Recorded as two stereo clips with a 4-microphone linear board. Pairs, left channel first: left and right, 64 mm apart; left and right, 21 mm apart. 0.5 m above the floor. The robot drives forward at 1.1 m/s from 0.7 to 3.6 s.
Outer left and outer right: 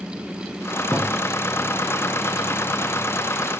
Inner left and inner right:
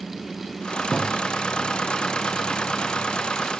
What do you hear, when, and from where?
0.9 s a thud: 30° left (ahead or behind), 6 m